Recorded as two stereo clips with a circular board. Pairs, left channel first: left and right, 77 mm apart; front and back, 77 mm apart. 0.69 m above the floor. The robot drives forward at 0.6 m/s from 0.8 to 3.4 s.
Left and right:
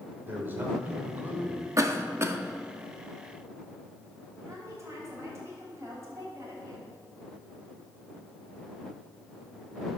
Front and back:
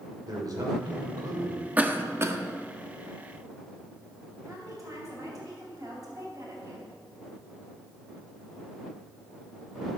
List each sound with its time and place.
0.2 s a man speaking: 150° right, 2.5 m; by 1.6 s 155° right, 3 m
1.8 s a cough: 115° right, 0.9 m; by 2.4 s 140° right, 1.1 m
4.5 s a woman speaking: 140° right, 4 m